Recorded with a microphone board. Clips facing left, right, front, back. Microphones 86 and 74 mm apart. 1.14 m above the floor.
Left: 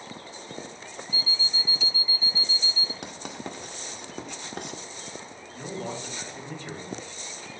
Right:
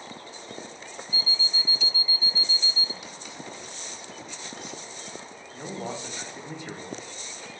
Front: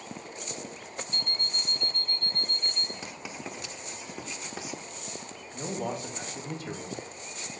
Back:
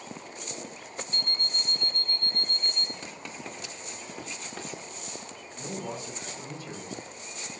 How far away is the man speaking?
About 2 m.